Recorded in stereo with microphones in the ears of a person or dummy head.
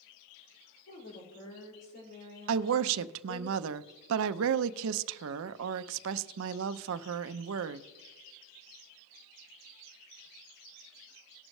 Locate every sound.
0.9 s a woman speaking: 60° left (ahead or behind), 4 m
2.5 s a woman speaking: 70° right (ahead or behind), 0.6 m